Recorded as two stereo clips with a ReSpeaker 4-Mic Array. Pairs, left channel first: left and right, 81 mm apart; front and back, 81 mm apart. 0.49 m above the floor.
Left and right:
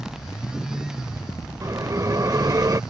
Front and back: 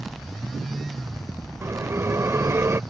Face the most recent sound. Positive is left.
turn(degrees=-130)